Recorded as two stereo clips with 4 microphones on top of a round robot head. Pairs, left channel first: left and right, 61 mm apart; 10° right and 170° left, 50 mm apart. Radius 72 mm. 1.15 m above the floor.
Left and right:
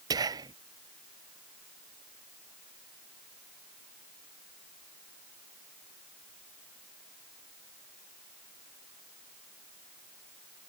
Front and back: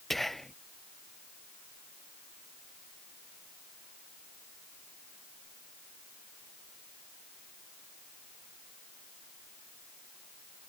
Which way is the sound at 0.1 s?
95° right.